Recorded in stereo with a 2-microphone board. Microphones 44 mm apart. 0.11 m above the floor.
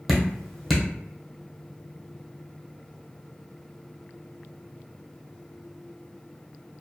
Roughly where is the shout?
No shout in this recording.